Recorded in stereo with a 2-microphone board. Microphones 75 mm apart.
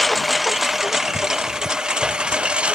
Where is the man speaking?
No man speaking in this recording.